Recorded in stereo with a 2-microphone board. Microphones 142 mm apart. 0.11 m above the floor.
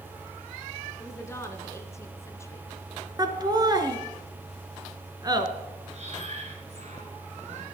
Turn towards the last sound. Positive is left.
turn(degrees=-55)  # may be behind; listen again after turning